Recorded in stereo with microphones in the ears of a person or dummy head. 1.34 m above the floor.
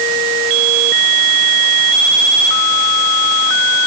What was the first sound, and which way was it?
Only background noise.